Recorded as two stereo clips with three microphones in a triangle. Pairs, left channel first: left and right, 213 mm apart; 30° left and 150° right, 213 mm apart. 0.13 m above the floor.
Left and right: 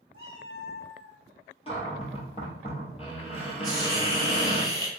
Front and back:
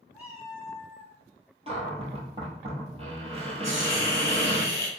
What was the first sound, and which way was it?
A cat meowing, 125° left.